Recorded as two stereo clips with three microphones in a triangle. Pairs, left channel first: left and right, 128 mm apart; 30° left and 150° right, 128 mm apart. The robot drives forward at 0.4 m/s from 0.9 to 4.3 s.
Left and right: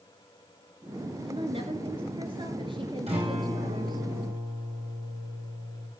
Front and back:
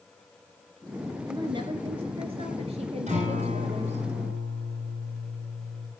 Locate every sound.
1.3 s a woman speaking: 110° right, 1.7 m; by 4.1 s 140° right, 2 m
3.1 s a guitar: 125° right, 9 m; by 5.9 s 130° right, 9.5 m